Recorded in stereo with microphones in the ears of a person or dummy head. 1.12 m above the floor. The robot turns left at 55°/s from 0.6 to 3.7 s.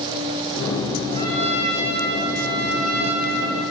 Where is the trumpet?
30° left, 1.5 m; by 3.6 s 110° right, 1.5 m.